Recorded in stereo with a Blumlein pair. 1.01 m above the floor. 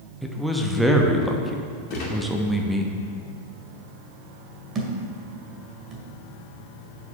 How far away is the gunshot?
About 2.5 m.